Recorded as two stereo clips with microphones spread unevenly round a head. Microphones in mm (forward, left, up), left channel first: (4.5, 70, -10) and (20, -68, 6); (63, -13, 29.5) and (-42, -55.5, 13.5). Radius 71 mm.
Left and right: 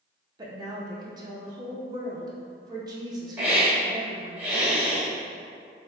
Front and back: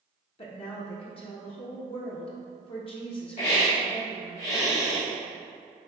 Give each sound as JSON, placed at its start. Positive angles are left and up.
{"t": 0.4, "sound": "a woman speaking", "azimuth_deg": -20, "distance_m": 0.9}
{"t": 3.4, "sound": "a hiss", "azimuth_deg": -5, "distance_m": 1.8}